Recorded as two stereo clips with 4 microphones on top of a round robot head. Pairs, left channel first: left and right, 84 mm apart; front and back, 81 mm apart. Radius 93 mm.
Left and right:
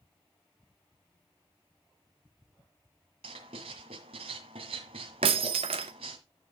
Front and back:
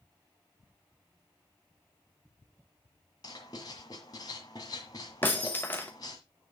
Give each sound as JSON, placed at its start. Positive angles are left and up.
{"t": 3.2, "sound": "writing", "azimuth_deg": -60, "distance_m": 1.8}
{"t": 5.2, "sound": "breaking glass", "azimuth_deg": -80, "distance_m": 0.9}